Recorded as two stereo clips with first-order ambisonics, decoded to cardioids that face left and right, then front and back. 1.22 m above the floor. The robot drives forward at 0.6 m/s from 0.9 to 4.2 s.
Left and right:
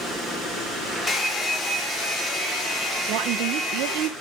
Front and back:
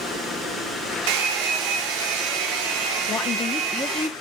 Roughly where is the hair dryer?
Behind.